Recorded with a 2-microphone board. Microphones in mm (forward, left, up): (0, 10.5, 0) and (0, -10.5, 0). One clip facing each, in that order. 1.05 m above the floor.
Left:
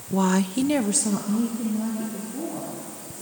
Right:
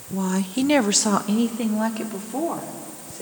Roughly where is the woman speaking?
Left.